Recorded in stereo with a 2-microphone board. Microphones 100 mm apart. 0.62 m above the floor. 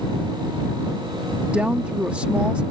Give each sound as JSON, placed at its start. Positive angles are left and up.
{"t": 1.5, "sound": "a woman speaking", "side_deg": -10}